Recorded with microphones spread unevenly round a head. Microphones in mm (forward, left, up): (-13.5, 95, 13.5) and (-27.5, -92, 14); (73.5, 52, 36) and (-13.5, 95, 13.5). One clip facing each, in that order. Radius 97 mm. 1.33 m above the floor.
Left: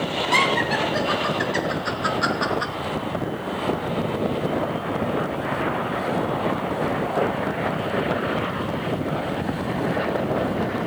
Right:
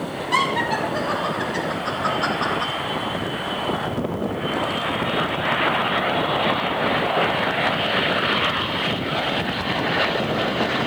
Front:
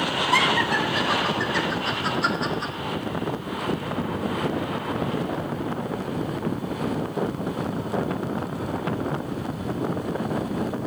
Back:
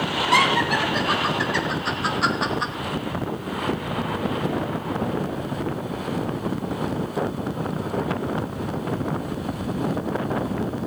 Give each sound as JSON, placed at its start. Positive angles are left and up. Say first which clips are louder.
{"t": 0.3, "sound": "laughter", "louder": "even, back 3 dB", "azimuth_deg": 150, "distance_m": 4.0}